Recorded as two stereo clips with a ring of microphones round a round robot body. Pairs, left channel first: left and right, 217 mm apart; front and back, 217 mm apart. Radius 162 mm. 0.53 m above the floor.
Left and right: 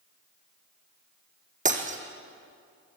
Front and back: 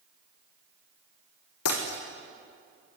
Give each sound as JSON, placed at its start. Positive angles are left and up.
{"t": 1.6, "sound": "breaking glass", "azimuth_deg": -35, "distance_m": 3.0}